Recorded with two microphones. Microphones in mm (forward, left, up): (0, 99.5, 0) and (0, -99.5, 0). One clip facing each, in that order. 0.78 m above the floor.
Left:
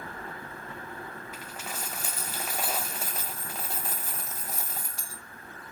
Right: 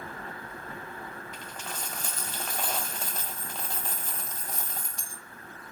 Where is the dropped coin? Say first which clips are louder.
Left 1 dB; 5° left (ahead or behind), 0.9 m.